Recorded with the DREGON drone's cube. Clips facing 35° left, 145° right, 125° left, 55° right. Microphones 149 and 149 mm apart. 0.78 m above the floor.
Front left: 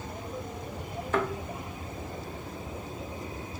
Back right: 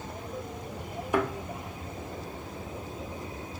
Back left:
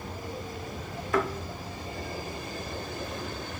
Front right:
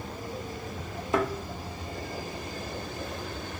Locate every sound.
1.1 s a thud: 85° right, 0.5 m